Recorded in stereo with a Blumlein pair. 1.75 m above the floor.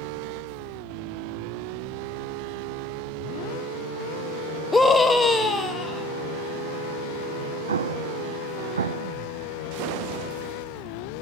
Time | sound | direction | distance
4.7 | a scream | 10° left | 0.7 m
7.7 | an explosion | 70° right | 0.5 m